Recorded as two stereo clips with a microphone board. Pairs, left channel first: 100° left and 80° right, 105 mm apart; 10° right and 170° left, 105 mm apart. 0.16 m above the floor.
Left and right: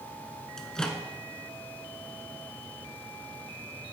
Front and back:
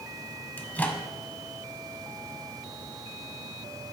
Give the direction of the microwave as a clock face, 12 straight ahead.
11 o'clock.